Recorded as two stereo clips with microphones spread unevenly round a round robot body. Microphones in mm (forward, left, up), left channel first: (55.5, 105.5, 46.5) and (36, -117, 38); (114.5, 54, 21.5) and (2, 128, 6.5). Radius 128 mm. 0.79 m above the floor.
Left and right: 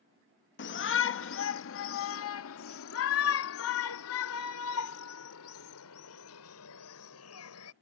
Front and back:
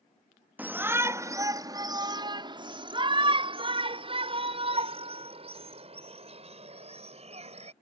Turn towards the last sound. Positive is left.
turn(degrees=110)